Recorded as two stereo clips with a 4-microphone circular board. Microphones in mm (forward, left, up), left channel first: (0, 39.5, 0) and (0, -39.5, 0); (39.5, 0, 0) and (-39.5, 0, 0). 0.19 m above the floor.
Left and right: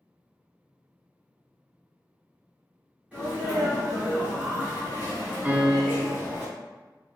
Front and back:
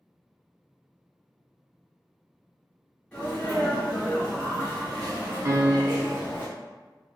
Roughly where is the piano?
Behind right.